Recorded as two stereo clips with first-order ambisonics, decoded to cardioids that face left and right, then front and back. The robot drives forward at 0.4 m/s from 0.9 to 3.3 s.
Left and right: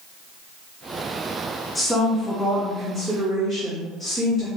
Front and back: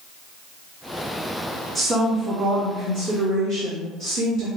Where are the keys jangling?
I don't hear keys jangling.